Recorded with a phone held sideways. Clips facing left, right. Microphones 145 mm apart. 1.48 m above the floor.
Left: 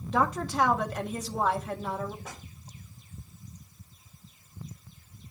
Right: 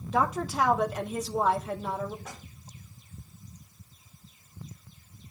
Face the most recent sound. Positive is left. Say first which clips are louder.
# even
turn(degrees=15)  # may be behind; listen again after turning